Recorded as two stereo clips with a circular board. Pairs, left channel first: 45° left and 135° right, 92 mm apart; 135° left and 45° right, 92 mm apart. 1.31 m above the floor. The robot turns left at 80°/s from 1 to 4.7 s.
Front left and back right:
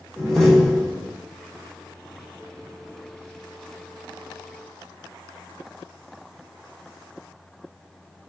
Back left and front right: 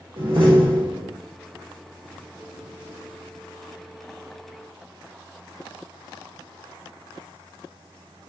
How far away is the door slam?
About 1.1 m.